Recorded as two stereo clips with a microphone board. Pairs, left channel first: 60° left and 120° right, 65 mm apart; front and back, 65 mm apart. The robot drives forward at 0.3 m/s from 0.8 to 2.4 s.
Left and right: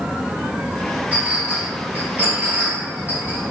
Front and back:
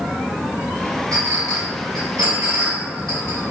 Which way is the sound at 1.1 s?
170° left.